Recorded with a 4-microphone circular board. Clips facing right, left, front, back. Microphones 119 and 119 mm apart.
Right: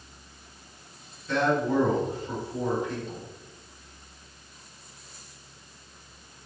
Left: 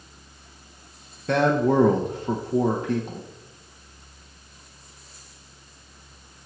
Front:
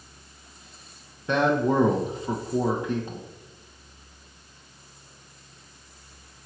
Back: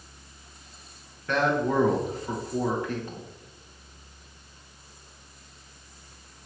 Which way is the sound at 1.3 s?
70° left.